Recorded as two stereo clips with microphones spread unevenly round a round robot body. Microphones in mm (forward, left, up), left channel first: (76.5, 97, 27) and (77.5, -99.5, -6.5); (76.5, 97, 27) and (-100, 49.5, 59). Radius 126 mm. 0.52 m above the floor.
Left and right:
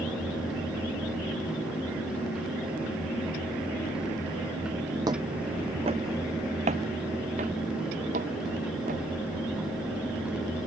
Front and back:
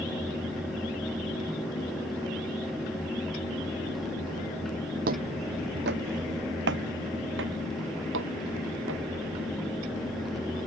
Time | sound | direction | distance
5.1 | footsteps | 170° right | ?